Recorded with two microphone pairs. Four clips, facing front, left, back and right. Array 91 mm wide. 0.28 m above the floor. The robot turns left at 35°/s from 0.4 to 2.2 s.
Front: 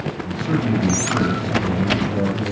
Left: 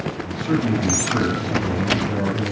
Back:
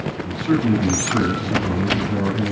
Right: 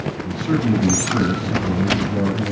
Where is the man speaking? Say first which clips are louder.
Right 1 dB, back 3 dB; 155° right, 1.9 m; by 2.5 s 140° left, 1.9 m.